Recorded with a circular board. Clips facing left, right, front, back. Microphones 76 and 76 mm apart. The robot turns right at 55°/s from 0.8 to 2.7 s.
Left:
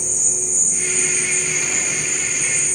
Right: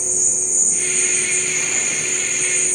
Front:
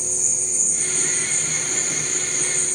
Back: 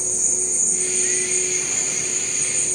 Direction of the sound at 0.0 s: 135° right.